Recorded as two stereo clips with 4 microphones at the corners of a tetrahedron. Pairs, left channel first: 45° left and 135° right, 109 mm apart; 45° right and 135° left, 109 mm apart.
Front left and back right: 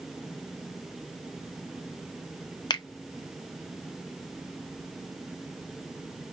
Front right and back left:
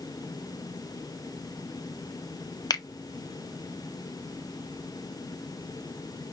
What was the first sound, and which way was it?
A finger snap, 5° left.